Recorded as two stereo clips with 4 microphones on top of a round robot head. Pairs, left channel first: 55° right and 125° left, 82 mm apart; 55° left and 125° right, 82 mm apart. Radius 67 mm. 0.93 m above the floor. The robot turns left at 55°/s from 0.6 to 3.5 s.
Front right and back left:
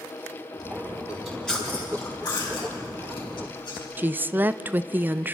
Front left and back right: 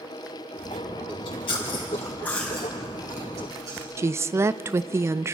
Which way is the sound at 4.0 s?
170° right.